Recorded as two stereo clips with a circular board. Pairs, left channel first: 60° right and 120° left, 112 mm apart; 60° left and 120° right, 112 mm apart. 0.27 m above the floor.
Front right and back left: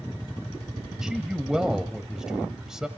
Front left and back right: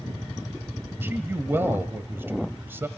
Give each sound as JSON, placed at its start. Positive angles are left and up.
{"t": 1.0, "sound": "a man speaking", "azimuth_deg": -160, "distance_m": 1.3}